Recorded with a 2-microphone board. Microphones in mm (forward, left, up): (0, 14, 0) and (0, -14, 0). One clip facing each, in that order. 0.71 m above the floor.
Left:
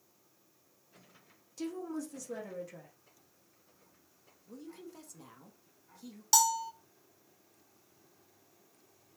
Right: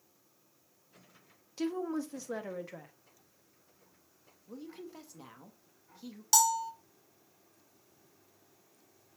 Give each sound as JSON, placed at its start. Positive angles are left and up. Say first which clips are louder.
{"t": 1.6, "sound": "a woman speaking", "louder": "right 4 dB", "side_deg": -35, "distance_m": 0.9}
{"t": 4.5, "sound": "a woman speaking", "louder": "right 2 dB", "side_deg": -20, "distance_m": 0.9}
{"t": 6.3, "sound": "a bell", "louder": "right 1 dB", "side_deg": 5, "distance_m": 0.7}